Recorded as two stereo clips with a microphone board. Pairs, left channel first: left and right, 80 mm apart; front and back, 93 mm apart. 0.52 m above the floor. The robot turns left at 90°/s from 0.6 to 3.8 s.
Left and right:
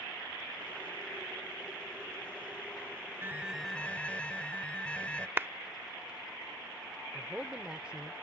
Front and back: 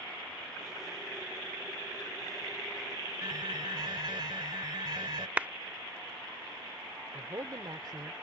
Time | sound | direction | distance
3.2 | an alarm | 145° right | ?
5.4 | a clap | 120° right | ?
7.1 | a man speaking | 165° right | ?